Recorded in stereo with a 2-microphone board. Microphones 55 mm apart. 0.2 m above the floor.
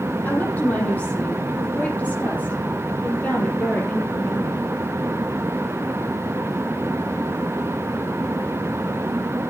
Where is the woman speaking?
30° left (ahead or behind), 8 m; by 4.6 s 25° left (ahead or behind), 5.5 m.